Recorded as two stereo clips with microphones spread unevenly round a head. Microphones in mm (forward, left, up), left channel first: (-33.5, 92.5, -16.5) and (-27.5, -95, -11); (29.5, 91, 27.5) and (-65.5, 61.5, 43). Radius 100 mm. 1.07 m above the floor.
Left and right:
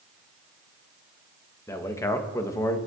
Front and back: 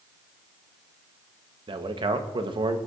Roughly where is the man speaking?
Behind.